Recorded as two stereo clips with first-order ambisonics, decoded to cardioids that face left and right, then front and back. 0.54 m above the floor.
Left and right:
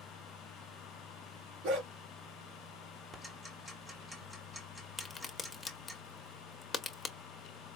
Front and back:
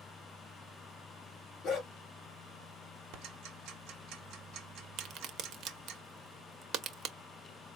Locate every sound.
1.6 s a dog barking: 55° right, 2.5 m
3.1 s ticking: 165° right, 1.4 m
5.0 s a crack: 165° left, 0.7 m